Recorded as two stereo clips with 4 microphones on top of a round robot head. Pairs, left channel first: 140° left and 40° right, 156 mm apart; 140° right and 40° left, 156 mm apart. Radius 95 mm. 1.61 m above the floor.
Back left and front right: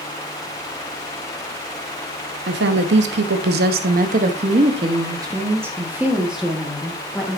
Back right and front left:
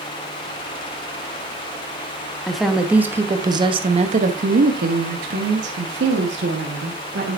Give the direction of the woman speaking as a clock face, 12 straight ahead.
2 o'clock.